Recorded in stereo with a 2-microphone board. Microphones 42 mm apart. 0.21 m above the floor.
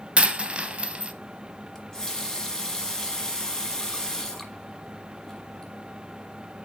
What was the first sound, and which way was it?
A dropped coin, 25° right (ahead or behind).